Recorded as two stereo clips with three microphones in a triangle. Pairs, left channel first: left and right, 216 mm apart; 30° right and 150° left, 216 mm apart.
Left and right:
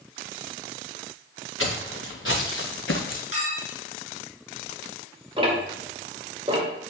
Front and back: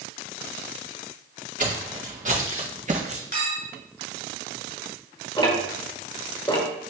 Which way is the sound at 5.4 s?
65° right.